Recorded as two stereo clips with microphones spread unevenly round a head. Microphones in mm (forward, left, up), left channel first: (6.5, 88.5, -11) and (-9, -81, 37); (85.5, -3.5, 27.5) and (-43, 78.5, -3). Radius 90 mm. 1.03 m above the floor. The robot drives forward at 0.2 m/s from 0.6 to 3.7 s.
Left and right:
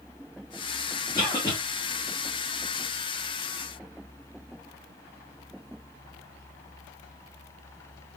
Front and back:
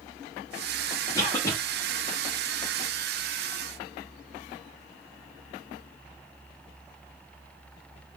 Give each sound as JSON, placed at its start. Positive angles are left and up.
{"t": 1.1, "sound": "a cough", "azimuth_deg": 40, "distance_m": 0.8}